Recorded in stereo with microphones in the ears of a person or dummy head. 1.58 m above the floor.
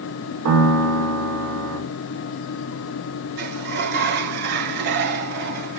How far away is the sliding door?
About 1.5 m.